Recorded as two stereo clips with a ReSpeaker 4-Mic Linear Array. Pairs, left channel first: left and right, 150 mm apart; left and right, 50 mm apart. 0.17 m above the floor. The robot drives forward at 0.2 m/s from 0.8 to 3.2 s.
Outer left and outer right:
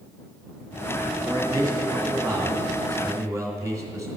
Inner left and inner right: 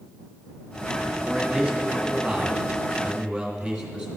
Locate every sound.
1.2 s a man speaking: 25° right (ahead or behind), 1.8 m; by 4.1 s 20° right (ahead or behind), 2 m